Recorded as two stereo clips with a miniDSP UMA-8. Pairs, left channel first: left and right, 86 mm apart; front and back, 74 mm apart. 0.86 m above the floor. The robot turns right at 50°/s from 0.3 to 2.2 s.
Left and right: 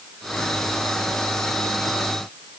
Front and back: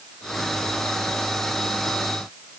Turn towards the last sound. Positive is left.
No sound to turn to.